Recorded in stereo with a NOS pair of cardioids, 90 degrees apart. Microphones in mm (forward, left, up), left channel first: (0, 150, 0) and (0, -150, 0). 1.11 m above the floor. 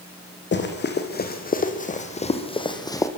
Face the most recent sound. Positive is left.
turn(degrees=10)